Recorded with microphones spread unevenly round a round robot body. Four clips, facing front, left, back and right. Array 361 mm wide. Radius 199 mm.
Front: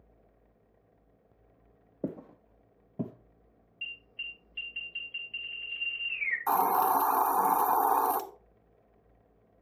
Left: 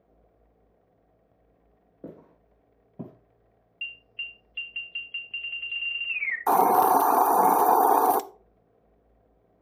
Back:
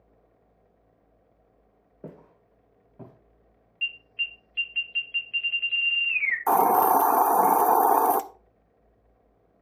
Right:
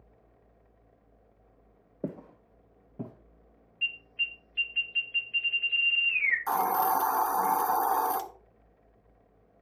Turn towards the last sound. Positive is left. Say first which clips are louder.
# left 8 dB, back 6 dB
turn(degrees=130)